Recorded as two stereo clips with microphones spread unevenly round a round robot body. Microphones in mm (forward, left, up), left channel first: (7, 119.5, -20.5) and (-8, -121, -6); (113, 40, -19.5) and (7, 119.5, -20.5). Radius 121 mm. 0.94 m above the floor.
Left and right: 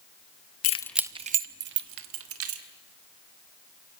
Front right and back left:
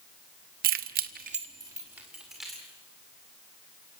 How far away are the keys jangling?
About 0.6 m.